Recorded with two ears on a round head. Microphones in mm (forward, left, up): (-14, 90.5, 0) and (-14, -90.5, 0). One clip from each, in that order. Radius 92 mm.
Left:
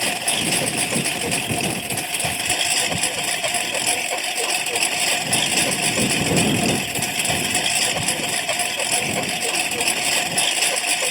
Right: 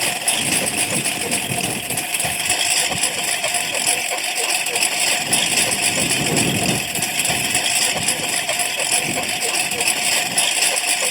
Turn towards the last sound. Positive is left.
turn(degrees=-10)  # may be behind; listen again after turning